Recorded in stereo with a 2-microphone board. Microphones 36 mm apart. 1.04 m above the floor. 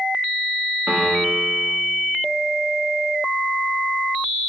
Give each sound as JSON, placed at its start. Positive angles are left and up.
{"t": 0.9, "sound": "a piano", "side_deg": -60, "distance_m": 1.4}